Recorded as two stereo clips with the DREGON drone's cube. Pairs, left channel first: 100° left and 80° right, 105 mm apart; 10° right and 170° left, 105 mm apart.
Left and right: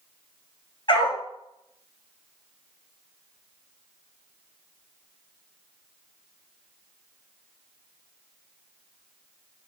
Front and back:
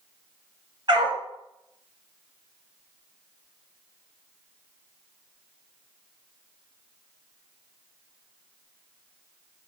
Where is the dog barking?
135° left, 1.1 m.